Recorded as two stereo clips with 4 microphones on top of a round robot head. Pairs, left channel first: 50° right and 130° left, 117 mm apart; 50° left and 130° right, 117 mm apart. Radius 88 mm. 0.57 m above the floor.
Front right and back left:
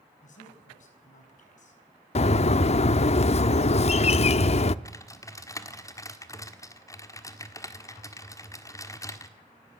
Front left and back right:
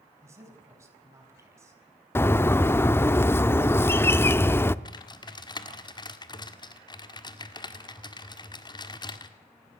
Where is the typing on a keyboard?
5° left, 1.8 m.